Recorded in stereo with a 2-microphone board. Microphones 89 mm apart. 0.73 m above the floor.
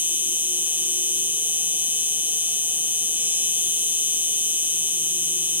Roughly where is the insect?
Right.